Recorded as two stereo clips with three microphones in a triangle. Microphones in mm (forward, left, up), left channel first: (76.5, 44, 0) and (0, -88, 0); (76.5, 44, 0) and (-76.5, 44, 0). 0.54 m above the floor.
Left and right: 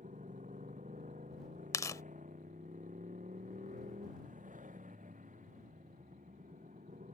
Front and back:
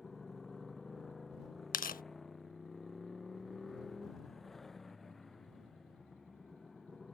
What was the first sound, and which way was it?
A motorcycle, 90° right.